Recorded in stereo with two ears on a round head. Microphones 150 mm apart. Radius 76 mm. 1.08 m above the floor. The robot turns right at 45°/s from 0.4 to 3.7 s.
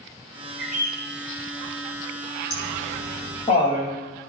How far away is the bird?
About 4.5 m.